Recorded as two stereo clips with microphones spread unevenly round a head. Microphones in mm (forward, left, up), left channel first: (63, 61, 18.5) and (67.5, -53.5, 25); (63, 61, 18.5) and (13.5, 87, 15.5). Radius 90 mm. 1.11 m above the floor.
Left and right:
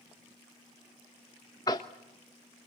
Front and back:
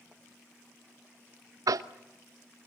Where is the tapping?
160° left, 0.9 m.